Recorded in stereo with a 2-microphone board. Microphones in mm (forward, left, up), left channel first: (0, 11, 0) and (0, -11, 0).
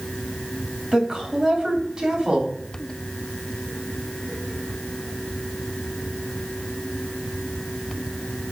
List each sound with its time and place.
0.9 s a woman speaking: 35° right (ahead or behind), 3 m